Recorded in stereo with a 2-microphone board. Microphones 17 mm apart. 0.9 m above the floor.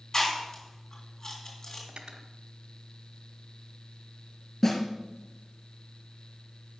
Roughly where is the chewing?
Left.